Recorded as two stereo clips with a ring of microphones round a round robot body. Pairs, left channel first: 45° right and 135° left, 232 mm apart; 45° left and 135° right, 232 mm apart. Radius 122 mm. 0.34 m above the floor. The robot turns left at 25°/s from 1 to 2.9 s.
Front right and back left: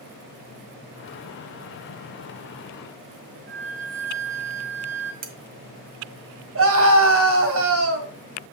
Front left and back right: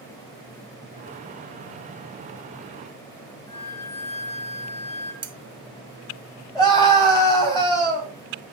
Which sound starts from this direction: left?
A flute, at 3.5 s.